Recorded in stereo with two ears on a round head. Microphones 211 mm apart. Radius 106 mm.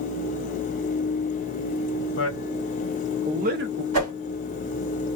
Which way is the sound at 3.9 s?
75° right (ahead or behind).